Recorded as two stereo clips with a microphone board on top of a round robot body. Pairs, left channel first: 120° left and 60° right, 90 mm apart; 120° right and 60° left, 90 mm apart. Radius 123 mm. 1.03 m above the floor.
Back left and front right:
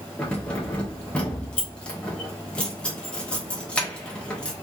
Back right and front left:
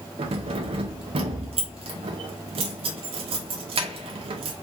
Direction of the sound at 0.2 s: 40° left.